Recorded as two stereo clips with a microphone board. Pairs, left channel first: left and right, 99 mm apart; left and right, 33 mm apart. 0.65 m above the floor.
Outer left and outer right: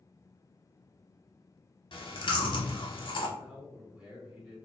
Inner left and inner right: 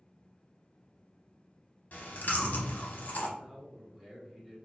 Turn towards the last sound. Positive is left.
turn(degrees=-10)  # may be behind; listen again after turning